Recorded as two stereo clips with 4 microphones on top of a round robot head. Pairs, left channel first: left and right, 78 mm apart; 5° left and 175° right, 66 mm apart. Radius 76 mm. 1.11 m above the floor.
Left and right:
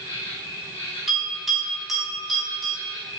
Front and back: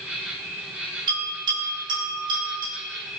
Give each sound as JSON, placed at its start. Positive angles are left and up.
{"t": 0.0, "sound": "an insect", "azimuth_deg": 115, "distance_m": 3.0}
{"t": 1.1, "sound": "a bell", "azimuth_deg": 180, "distance_m": 4.5}